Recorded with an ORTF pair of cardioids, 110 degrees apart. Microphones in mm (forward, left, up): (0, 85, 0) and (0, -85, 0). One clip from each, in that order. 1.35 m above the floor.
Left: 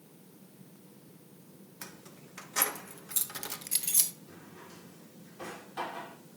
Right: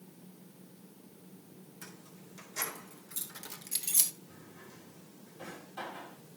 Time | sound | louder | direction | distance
1.8 | keys jangling | left 4 dB | 70° left | 1.9 m
4.3 | a drawer | left 3 dB | 40° left | 2.5 m